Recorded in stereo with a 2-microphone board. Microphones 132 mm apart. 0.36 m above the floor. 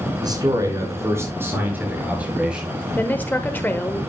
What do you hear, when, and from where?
0.2 s a man speaking: 30° right (ahead or behind), 4 m; by 2.9 s 5° right (ahead or behind), 6 m
3.0 s a woman speaking: 15° left (ahead or behind), 1.0 m